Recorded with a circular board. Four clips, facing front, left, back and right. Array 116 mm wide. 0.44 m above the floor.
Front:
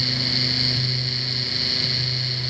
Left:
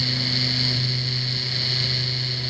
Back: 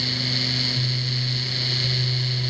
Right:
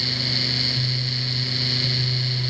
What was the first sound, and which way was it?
Only background noise.